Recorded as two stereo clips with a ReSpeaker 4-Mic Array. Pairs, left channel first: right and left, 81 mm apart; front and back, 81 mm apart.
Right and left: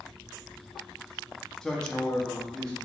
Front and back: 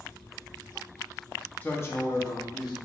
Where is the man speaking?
20° right, 0.6 m; by 2.8 s 10° right, 1.1 m.